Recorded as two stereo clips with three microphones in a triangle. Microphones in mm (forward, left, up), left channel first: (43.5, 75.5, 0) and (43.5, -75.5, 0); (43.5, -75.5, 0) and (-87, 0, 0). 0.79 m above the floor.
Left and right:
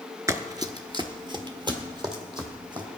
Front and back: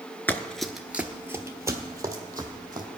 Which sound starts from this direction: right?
Running footsteps, at 0.3 s.